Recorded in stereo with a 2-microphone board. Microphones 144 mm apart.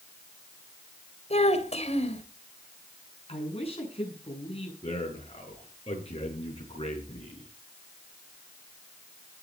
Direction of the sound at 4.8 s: 45° left (ahead or behind).